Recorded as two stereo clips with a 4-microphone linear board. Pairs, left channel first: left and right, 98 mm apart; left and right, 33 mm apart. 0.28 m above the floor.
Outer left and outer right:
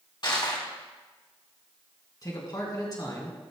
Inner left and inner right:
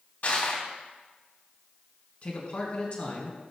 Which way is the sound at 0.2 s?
50° left (ahead or behind).